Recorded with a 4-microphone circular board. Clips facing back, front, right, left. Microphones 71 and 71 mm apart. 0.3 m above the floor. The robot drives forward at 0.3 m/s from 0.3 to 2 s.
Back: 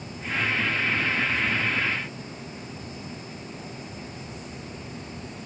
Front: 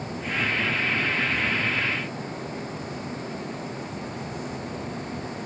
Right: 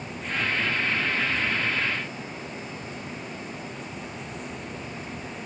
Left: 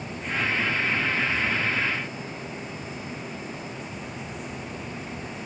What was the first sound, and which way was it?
Only background noise.